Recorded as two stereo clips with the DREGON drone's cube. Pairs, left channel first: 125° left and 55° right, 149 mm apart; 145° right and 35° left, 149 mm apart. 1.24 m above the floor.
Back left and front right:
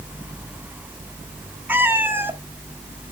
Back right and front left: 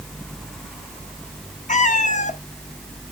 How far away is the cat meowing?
About 0.8 m.